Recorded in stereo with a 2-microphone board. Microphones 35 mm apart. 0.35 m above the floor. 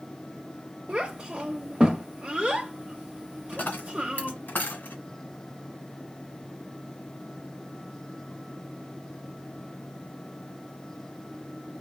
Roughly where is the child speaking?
Right.